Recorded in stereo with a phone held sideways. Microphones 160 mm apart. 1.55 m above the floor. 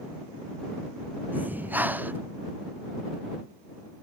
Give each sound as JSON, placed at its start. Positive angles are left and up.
{"t": 1.3, "sound": "breathing", "side_deg": -10}